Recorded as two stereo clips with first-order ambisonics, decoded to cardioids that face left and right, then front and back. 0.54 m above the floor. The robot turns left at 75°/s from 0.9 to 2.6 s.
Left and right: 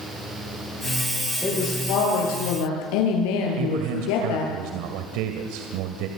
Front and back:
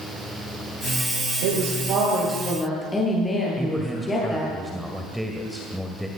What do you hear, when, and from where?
1.4 s a woman speaking: 170° left, 10 m; by 4.5 s 80° left, 10 m
3.6 s a man speaking: 90° right, 2 m